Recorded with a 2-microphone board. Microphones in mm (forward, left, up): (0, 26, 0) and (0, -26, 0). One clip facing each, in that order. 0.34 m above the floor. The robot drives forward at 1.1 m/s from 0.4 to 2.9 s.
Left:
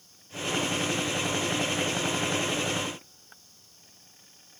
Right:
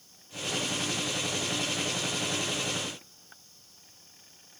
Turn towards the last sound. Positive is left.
No sound to turn to.